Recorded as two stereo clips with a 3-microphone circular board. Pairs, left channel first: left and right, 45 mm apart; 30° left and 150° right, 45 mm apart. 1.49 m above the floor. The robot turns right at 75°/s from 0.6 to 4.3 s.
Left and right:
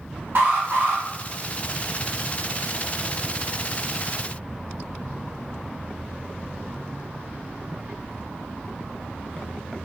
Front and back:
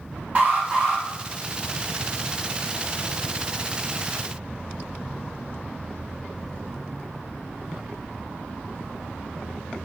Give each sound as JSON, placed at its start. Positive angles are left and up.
{"t": 0.3, "sound": "an alarm", "azimuth_deg": -95, "distance_m": 1.0}